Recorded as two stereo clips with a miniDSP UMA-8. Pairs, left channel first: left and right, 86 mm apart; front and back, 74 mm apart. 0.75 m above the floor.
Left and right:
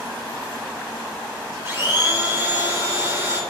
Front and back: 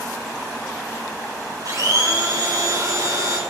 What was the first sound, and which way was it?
A blender, 150° right.